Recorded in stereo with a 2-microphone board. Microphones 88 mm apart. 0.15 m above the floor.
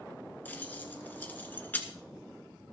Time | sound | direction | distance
0.5 | keys jangling | 20° left (ahead or behind) | 1.6 m